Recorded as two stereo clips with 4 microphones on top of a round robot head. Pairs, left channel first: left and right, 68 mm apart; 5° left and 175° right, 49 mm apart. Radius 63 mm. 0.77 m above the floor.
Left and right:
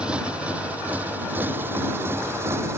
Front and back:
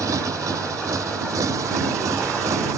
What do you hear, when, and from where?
0.0 s a motorcycle: 170° right; by 2.8 s 150° right